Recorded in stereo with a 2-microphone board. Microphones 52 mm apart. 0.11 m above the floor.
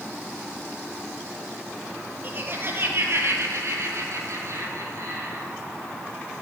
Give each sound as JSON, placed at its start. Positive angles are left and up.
{"t": 2.2, "sound": "laughter", "side_deg": -40, "distance_m": 2.5}